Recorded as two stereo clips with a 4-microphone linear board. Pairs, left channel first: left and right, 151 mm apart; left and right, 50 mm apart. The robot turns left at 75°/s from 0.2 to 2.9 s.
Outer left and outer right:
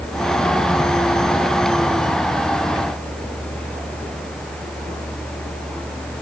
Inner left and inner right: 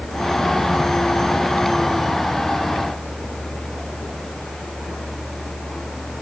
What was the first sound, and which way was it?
Only background noise.